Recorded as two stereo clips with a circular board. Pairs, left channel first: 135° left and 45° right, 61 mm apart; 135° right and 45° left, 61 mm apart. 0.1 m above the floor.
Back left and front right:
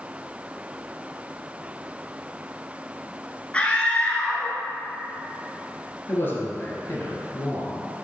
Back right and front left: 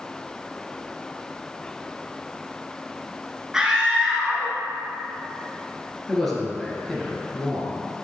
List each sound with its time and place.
3.5 s a scream: 105° left, 1.1 m
6.1 s a man speaking: 140° left, 2 m